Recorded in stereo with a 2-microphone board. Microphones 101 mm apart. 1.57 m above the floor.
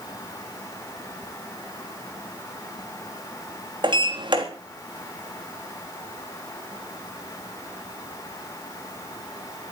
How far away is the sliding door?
About 3.5 m.